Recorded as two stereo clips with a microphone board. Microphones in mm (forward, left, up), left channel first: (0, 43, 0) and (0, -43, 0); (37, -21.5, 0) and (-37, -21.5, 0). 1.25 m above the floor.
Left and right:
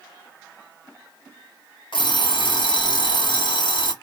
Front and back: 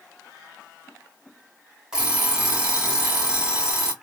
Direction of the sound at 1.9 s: 100° left.